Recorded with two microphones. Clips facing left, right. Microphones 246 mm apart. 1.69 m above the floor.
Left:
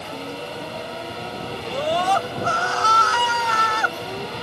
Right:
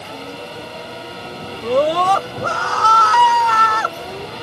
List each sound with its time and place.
1.6 s a scream: 85° right; by 4.0 s 70° right (ahead or behind)